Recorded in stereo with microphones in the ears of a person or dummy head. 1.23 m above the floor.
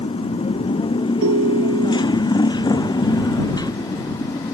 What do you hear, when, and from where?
0.0 s a motorcycle: 30° left (ahead or behind); by 4.5 s 20° left (ahead or behind)
1.2 s a ringtone: 85° right